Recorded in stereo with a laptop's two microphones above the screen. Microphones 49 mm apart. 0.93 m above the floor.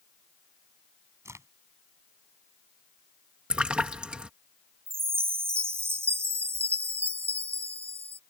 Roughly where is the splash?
Right.